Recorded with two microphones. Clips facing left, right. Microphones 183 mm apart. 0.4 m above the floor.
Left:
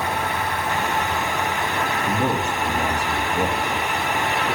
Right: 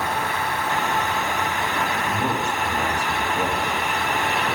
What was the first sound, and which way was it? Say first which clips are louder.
A man speaking: left 2 dB; 35° left (ahead or behind).